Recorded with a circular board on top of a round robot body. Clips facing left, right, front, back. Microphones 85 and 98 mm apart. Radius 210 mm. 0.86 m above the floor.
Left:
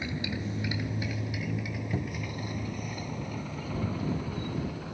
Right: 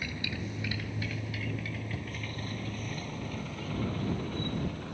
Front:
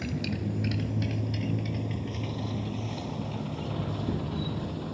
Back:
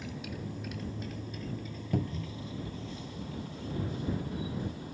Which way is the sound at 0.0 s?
20° left.